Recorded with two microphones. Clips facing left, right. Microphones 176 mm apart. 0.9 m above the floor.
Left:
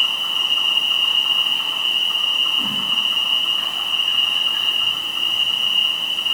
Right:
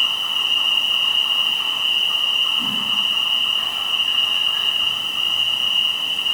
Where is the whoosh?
55° left (ahead or behind), 1.0 m.